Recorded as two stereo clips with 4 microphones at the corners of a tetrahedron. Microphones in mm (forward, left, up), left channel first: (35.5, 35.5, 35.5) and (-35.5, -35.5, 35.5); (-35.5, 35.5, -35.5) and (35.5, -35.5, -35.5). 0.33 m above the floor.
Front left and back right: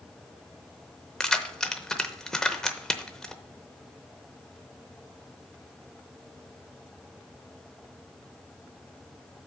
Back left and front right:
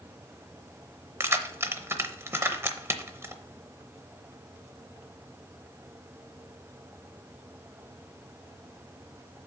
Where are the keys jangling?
35° right, 0.7 m.